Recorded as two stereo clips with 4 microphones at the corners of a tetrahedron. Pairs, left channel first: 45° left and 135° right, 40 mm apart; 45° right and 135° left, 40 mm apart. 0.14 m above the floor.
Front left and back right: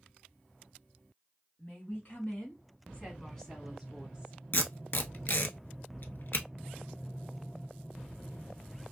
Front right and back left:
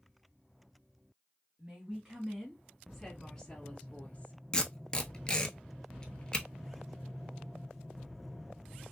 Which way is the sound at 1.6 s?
70° left.